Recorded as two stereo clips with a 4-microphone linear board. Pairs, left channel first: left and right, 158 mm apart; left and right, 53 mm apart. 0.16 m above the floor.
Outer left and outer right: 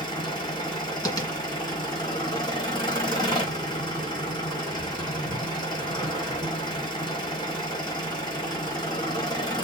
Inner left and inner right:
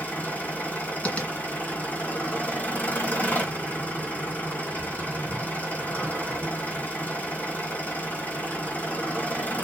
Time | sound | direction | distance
0.0 | an engine running | 30° left (ahead or behind) | 3 m
1.1 | tapping | 25° left (ahead or behind) | 1.9 m